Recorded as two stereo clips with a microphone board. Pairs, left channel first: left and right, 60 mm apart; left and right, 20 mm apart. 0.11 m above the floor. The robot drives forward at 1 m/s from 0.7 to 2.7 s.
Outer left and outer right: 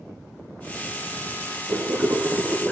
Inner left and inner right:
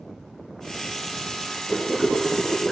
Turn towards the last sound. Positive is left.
turn(degrees=-35)  # may be behind; listen again after turning